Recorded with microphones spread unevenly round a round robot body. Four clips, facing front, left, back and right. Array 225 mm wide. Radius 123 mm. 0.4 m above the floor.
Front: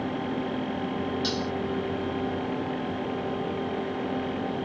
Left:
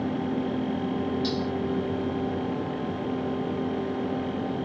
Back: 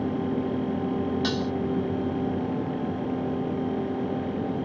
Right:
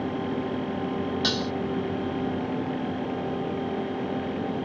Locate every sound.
1.2 s dishes clattering: 95° right